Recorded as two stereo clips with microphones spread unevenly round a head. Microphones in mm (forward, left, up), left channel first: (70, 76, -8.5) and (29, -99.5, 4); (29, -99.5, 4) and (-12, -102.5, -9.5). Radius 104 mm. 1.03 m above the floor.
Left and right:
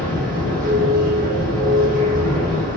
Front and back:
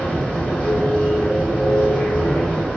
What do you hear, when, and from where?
0.0 s a machine running: 60° right, 1.6 m